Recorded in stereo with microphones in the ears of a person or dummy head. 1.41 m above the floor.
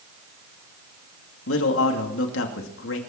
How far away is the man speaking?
About 2.5 m.